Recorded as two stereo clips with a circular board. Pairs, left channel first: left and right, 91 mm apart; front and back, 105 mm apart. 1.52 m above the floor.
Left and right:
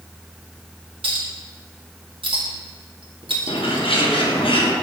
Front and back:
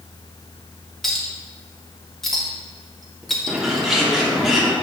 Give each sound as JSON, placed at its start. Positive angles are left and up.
{"t": 1.0, "sound": "a clink", "azimuth_deg": -90, "distance_m": 1.7}
{"t": 3.5, "sound": "a bird", "azimuth_deg": 90, "distance_m": 1.4}